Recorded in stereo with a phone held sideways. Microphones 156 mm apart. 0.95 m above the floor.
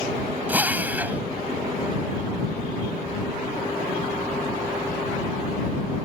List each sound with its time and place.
0.5 s a drill: 10° right (ahead or behind)